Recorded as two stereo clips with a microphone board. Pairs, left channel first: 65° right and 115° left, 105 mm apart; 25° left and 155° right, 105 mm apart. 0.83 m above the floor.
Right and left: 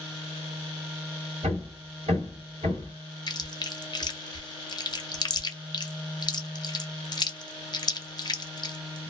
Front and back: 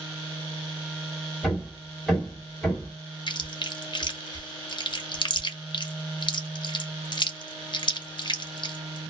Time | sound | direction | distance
1.4 | hammering | 110° left | 1.7 m
3.3 | chewing | 20° right | 0.5 m